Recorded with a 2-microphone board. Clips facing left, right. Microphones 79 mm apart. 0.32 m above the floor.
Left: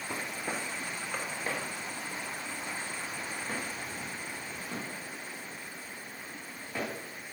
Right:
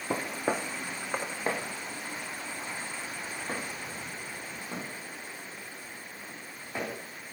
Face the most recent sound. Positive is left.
turn(degrees=-5)  # may be behind; listen again after turning